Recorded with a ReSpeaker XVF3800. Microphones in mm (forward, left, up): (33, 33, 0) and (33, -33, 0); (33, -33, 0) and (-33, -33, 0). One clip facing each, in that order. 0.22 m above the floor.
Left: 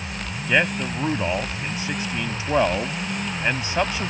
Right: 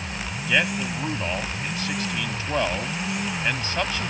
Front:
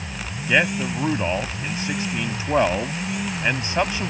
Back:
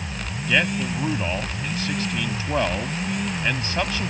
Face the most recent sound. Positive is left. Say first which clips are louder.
# left 2 dB, front 2 dB
turn(degrees=40)